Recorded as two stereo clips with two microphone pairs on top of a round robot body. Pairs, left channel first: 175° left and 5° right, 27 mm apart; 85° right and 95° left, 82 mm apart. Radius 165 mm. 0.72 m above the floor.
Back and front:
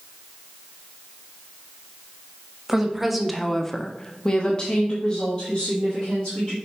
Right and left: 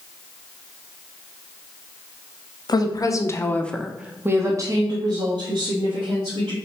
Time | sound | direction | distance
2.7 | a woman speaking | 90° right | 1.0 m